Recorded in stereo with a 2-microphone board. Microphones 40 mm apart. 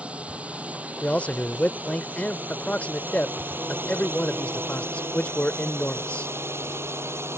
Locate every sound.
0.0 s a drone: 30° right (ahead or behind); by 7.4 s 80° right
1.0 s a man speaking: 35° left (ahead or behind)